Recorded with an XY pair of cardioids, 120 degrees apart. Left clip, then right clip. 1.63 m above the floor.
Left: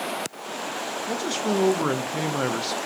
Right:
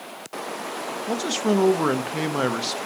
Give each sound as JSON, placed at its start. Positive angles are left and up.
{"t": 1.1, "sound": "a man speaking", "azimuth_deg": -15, "distance_m": 1.0}